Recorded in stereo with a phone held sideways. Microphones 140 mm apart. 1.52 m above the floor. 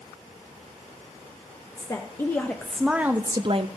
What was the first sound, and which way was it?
A woman speaking, 25° left (ahead or behind).